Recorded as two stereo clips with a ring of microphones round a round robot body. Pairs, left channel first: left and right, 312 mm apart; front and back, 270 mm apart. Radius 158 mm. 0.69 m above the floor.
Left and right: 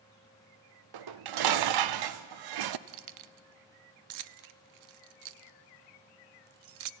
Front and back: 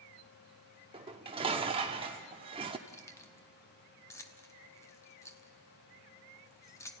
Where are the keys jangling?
80° right, 0.6 m.